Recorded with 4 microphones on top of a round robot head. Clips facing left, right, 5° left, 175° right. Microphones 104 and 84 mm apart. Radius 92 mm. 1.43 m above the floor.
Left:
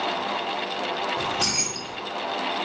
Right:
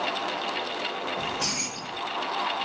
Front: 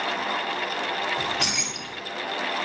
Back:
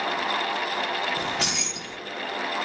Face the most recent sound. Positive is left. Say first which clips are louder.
# left 4 dB, even
turn(degrees=130)